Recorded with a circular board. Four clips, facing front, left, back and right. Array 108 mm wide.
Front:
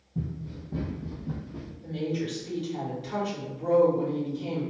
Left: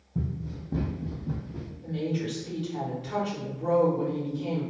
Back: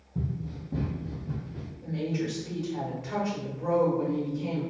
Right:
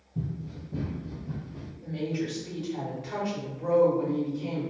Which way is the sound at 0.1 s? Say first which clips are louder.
Left 2 dB, back 1 dB; 105° left.